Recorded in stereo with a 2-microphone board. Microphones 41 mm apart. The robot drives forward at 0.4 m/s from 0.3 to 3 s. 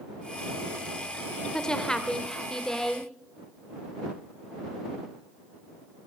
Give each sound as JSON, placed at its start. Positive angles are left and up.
{"t": 1.5, "sound": "a woman speaking", "side_deg": 20, "distance_m": 1.2}